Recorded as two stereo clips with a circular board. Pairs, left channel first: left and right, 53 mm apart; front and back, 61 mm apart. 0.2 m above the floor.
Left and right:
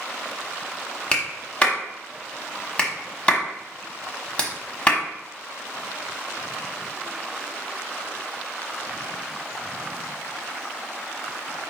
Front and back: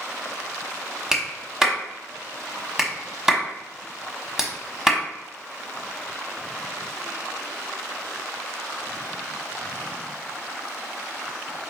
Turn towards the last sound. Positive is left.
turn(degrees=115)